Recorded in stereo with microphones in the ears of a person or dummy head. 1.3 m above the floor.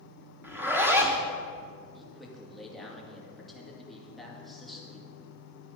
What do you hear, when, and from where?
0.4 s a zipper: 15° right (ahead or behind), 1.1 m
1.9 s a man speaking: 10° left (ahead or behind), 2.5 m